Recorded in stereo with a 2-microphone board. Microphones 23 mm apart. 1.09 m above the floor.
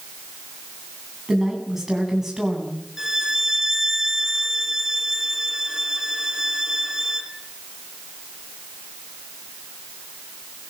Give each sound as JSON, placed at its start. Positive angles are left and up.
{"t": 1.3, "sound": "a woman speaking", "side_deg": -15, "distance_m": 9.5}
{"t": 3.0, "sound": "a violin", "side_deg": -20, "distance_m": 2.5}